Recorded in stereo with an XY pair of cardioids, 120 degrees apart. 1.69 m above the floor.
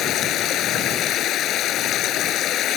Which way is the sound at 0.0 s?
65° left.